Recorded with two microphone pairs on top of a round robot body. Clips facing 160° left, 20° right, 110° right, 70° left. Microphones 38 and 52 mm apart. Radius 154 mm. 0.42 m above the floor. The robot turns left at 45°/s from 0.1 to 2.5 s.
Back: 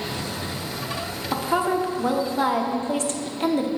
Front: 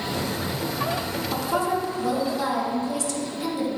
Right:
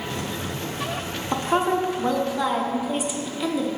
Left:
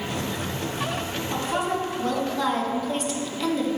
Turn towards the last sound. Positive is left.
turn(degrees=175)